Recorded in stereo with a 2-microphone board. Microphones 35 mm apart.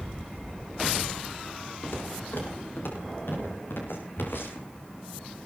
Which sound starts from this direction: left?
Footsteps, at 1.8 s.